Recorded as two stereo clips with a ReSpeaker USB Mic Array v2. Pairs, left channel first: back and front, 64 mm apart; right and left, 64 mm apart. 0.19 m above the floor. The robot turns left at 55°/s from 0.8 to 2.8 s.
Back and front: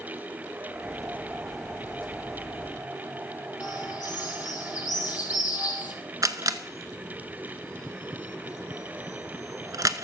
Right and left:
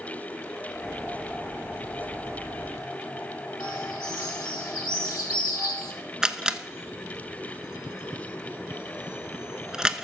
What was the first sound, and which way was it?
A bird, 65° right.